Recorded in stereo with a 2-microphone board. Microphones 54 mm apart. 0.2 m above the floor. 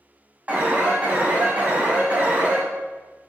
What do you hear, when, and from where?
0.5 s an alarm: 30° right (ahead or behind), 1.9 m